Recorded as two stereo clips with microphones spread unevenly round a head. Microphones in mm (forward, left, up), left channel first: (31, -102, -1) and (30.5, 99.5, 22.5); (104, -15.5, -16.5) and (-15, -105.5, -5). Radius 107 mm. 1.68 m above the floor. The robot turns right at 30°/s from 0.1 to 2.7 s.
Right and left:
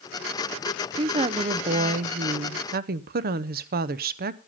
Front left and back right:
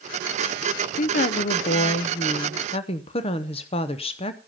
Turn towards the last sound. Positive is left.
turn(degrees=85)